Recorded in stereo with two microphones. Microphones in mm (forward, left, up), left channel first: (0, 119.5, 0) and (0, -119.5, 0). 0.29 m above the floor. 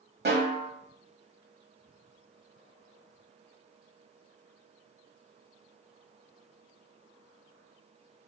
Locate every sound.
0.2 s a snare drum: 45° right (ahead or behind), 1.2 m